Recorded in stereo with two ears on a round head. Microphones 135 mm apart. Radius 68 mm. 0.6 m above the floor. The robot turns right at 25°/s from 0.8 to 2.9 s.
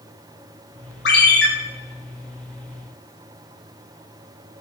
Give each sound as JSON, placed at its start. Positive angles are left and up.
{"t": 1.1, "sound": "a ringtone", "side_deg": 80, "distance_m": 1.0}